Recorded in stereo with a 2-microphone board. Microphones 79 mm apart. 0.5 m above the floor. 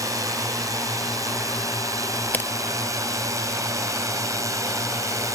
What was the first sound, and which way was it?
A drone, 40° right (ahead or behind).